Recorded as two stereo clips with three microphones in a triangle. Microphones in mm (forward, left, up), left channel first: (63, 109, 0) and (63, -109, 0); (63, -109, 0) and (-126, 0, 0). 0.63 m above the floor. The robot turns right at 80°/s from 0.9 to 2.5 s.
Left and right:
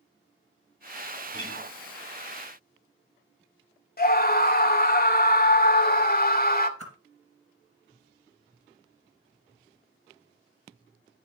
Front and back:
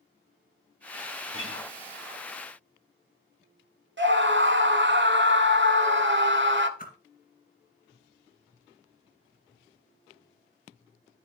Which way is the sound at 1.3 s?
125° left.